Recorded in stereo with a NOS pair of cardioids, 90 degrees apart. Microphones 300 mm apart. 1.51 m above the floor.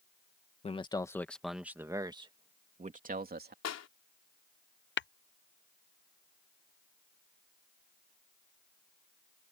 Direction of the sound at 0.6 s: 20° left.